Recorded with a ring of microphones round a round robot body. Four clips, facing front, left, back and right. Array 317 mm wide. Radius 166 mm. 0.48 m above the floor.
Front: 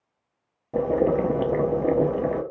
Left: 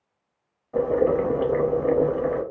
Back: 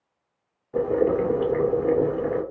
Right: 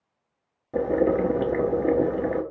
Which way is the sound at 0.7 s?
35° right.